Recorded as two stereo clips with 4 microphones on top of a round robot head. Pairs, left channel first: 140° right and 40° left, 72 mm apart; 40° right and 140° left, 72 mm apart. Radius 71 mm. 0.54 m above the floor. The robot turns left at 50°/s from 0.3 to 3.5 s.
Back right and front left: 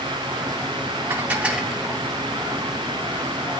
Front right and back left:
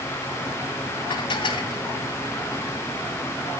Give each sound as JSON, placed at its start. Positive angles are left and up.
{"t": 1.1, "sound": "dishes clattering", "azimuth_deg": -20, "distance_m": 2.5}